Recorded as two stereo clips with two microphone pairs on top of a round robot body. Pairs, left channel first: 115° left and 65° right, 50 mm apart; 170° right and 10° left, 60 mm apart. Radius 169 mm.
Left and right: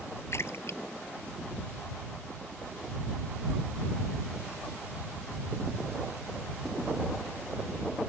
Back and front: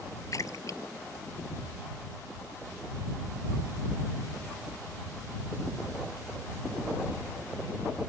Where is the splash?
150° left.